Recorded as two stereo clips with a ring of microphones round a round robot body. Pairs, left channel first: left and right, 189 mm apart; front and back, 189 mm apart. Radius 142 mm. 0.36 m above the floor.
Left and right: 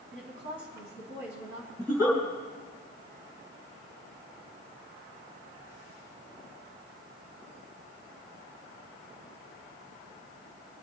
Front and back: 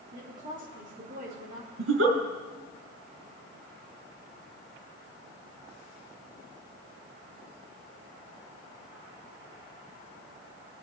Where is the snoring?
No snoring in this recording.